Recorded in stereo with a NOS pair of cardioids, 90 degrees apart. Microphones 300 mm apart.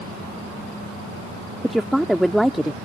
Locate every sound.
1.6 s a woman speaking: straight ahead